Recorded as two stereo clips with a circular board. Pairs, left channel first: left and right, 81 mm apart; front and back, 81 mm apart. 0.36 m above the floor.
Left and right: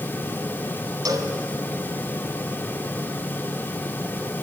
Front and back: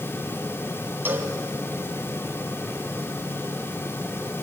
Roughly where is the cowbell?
Behind right.